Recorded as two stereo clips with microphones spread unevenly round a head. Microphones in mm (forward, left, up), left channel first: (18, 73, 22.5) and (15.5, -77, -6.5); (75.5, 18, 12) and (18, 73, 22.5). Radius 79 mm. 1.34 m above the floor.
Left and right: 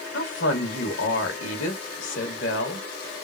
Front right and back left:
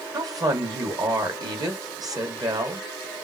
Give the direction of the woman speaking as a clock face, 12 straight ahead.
9 o'clock.